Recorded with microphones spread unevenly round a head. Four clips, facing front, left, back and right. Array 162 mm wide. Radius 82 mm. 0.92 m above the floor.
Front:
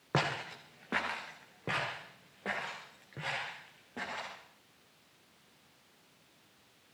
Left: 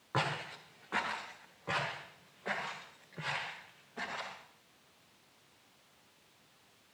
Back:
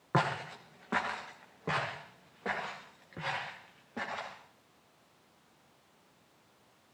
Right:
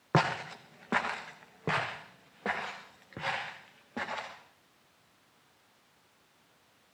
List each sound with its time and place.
0.1 s footsteps: 70° right, 1.9 m; by 4.3 s 80° right, 5.5 m